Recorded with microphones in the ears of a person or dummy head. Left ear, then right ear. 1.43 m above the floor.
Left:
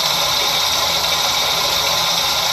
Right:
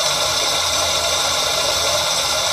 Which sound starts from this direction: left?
Running water, at 0.0 s.